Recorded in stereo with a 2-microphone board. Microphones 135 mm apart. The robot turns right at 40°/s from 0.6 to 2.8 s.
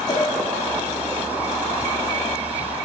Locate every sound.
0.1 s a cowbell: 35° left (ahead or behind), 1.8 m